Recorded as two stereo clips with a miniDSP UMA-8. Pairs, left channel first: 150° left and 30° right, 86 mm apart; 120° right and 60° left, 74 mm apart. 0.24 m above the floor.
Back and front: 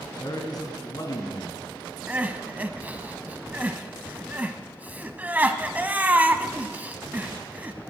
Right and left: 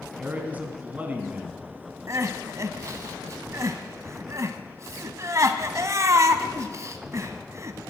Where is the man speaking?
125° left, 1.9 m.